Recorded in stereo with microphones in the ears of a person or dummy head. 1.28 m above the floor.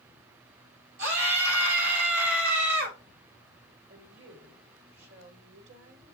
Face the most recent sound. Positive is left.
turn(degrees=-75)  # may be behind; listen again after turning